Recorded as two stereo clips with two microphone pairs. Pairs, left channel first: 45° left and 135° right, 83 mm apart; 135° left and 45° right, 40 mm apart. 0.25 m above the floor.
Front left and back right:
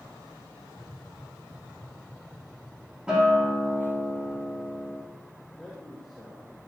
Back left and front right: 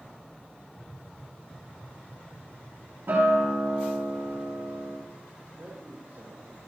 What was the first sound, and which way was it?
Tapping, 175° left.